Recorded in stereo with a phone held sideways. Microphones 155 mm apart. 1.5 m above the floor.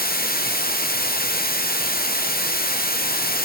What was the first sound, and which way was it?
Running water, 80° left.